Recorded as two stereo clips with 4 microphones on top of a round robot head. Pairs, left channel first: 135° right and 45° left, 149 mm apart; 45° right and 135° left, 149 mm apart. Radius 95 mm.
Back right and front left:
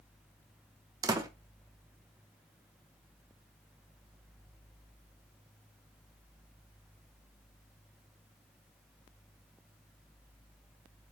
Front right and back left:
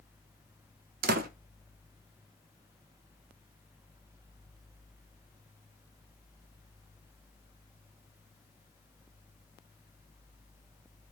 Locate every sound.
1.0 s a door slam: 110° left, 0.8 m